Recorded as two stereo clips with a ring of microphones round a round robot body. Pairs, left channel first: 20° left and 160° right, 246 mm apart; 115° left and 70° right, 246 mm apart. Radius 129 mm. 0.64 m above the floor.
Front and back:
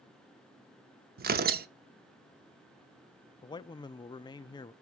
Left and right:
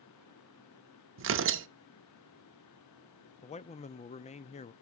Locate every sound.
1.2 s tearing paper: 105° right, 0.9 m
3.4 s a man speaking: 80° left, 0.6 m